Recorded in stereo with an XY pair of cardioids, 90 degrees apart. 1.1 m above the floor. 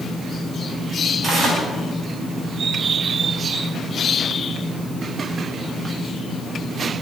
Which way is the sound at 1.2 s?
50° right.